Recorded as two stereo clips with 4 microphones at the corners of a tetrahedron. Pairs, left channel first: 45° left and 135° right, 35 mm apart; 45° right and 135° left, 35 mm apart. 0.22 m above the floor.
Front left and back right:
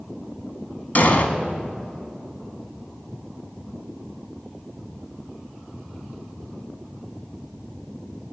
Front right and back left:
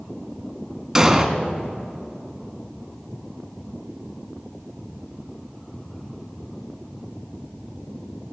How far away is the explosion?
About 1.3 m.